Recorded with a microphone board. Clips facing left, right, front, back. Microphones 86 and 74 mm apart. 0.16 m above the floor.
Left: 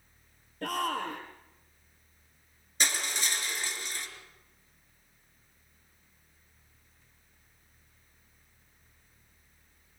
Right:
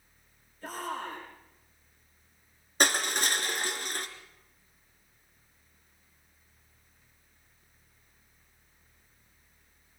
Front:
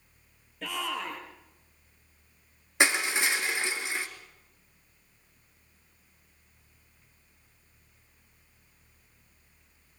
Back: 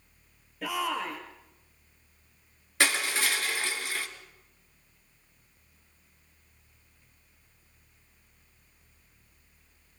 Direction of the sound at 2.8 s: 65° right.